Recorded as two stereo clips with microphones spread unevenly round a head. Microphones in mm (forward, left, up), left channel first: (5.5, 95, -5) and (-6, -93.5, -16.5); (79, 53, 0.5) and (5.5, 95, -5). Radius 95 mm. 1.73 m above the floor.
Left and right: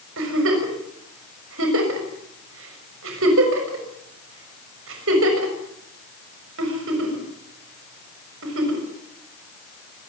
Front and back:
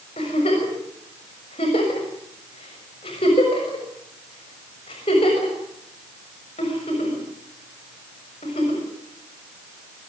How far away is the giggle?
About 6 m.